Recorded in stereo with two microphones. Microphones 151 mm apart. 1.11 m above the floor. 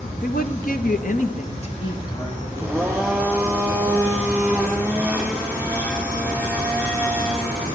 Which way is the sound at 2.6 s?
15° right (ahead or behind).